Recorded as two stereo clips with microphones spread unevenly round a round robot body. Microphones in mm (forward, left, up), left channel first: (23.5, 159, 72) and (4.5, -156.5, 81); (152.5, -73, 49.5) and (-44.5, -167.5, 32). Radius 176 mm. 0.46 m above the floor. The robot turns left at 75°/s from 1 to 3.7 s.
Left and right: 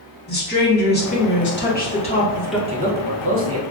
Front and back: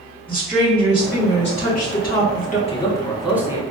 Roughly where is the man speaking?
Ahead right.